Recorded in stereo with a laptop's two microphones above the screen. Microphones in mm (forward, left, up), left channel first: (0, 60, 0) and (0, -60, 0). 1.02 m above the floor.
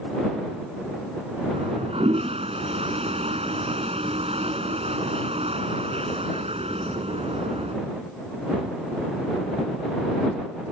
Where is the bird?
I don't hear a bird.